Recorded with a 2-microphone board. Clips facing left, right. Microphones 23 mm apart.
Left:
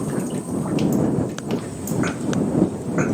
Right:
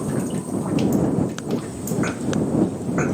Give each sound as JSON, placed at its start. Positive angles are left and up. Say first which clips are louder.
{"t": 1.4, "sound": "footsteps", "louder": "even", "side_deg": 45}